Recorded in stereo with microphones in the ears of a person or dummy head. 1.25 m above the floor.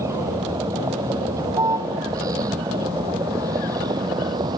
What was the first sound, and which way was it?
A vehicle, 15° right (ahead or behind).